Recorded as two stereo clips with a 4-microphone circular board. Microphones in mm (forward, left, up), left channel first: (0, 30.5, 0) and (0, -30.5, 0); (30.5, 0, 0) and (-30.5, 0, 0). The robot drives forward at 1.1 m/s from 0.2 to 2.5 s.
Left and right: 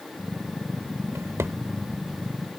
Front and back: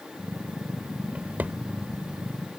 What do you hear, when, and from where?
1.1 s a drawer: 115° right; by 1.6 s 125° right